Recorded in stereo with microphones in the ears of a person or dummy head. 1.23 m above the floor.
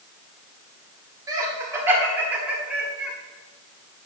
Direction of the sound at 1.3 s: 25° right (ahead or behind).